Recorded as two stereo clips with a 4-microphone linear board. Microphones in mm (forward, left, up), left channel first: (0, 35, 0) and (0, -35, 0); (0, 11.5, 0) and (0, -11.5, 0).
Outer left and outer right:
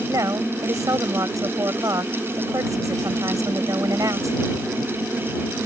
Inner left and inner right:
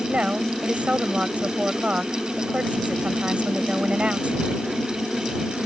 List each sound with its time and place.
0.1 s a woman speaking: 55° right (ahead or behind)